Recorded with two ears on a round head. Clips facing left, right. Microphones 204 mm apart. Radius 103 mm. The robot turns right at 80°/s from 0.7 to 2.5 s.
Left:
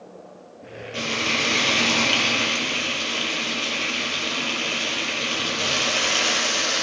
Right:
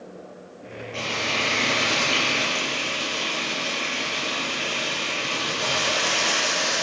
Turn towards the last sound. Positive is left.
turn(degrees=140)